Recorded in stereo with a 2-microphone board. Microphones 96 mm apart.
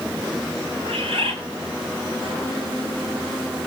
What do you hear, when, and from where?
0.8 s a bird: 80° right, 4 m